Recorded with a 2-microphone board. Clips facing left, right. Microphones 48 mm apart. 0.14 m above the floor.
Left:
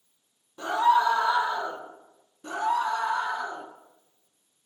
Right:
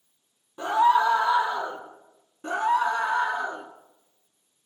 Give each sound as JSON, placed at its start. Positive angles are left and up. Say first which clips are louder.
{"t": 0.6, "sound": "a scream", "louder": "right 2 dB", "side_deg": -25, "distance_m": 4.5}
{"t": 2.4, "sound": "a scream", "louder": "right 3 dB", "side_deg": -45, "distance_m": 2.5}